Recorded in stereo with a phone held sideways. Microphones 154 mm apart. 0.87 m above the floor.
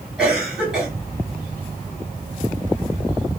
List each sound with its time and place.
0.2 s a cough: 5° right (ahead or behind), 2.5 m